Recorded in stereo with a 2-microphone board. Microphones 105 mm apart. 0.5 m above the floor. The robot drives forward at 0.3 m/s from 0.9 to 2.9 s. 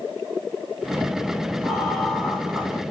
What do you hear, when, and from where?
1.6 s laughter: centre (ahead or behind), 1.2 m